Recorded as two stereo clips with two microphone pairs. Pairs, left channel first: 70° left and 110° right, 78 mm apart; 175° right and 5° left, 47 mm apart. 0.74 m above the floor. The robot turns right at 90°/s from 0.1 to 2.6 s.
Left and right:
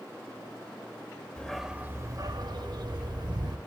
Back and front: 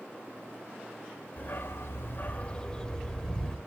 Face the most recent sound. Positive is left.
turn(degrees=-105)